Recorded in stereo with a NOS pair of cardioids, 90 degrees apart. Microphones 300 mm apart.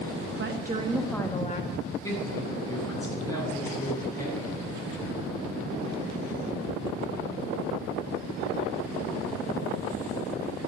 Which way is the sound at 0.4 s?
40° right.